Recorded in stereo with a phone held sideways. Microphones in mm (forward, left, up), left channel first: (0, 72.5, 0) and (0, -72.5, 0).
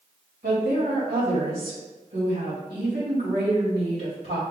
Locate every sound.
0.4 s a woman speaking: 85° right, 2 m